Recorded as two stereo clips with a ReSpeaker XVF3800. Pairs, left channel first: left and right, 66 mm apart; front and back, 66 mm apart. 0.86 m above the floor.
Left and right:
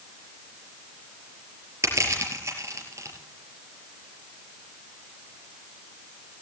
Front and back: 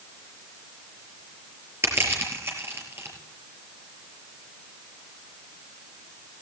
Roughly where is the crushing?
Behind right.